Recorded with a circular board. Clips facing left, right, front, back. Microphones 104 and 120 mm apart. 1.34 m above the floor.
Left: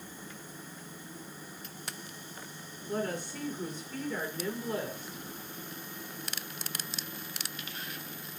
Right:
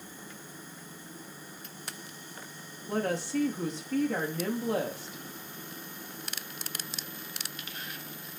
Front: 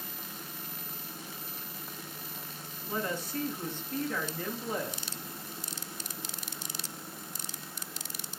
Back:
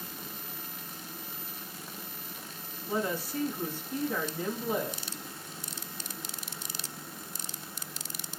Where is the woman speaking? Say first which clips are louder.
Right 4 dB, back 3 dB; 100° right, 2 m.